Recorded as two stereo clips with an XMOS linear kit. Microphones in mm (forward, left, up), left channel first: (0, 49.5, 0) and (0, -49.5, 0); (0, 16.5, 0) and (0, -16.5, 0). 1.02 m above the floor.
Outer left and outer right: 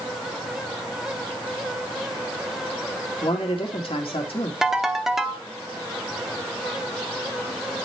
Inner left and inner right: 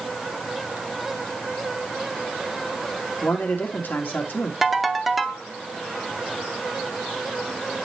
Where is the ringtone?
5° right (ahead or behind), 0.7 m.